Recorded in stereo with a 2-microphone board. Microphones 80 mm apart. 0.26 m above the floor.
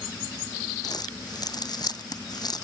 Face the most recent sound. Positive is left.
turn(degrees=60)  # may be behind; listen again after turning